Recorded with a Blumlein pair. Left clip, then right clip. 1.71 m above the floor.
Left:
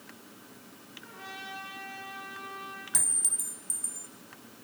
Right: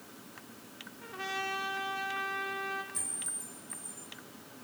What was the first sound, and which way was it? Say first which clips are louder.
A trumpet: right 7 dB; 25° right.